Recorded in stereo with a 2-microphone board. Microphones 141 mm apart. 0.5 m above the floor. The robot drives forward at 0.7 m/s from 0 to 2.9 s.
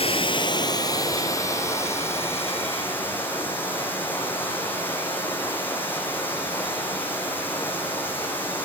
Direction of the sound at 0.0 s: 45° left (ahead or behind).